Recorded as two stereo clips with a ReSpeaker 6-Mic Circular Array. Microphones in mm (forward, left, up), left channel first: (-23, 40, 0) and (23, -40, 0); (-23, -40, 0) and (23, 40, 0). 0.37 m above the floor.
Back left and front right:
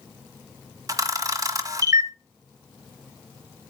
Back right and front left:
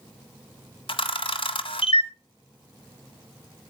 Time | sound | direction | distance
0.9 | a camera shutter | 110° right | 1.2 m